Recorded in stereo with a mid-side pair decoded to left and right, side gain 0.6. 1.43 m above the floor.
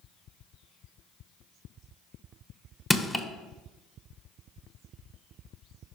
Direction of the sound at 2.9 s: 10° left.